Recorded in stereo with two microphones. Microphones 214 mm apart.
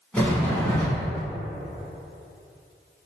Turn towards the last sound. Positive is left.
turn(degrees=5)  # may be behind; listen again after turning